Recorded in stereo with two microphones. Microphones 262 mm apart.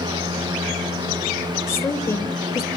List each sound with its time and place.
1.7 s a woman speaking: 10° left (ahead or behind), 1.0 m